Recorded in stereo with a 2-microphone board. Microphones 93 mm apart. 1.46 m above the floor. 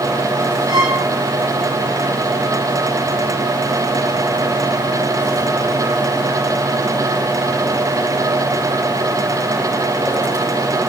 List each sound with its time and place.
0.7 s a violin: 65° right (ahead or behind), 3.5 m